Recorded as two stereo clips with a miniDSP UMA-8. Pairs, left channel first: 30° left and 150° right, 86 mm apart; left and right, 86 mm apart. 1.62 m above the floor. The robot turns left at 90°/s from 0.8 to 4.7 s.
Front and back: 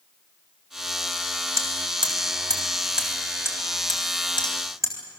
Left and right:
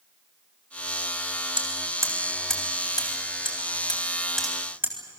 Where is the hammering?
100° right, 3.5 m; by 5.0 s 20° right, 3.5 m.